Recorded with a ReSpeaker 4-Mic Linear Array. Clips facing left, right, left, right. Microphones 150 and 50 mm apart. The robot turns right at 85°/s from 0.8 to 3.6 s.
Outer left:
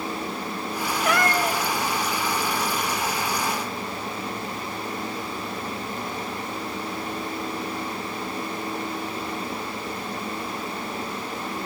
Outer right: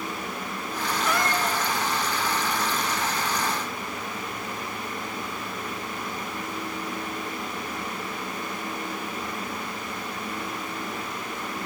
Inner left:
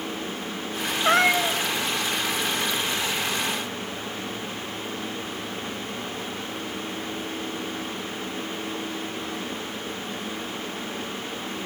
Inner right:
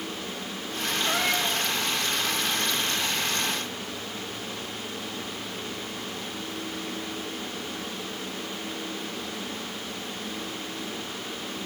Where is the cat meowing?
85° left, 1.0 m; by 1.6 s 135° left, 1.0 m.